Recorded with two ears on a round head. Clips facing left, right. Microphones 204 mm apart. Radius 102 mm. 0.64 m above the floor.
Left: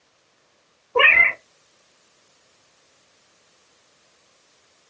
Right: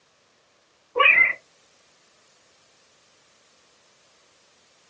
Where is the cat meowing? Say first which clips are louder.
Left 4 dB; 85° left, 0.8 m.